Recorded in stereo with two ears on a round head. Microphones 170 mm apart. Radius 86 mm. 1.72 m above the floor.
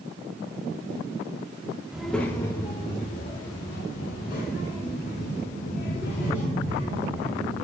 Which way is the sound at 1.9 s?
5° right (ahead or behind).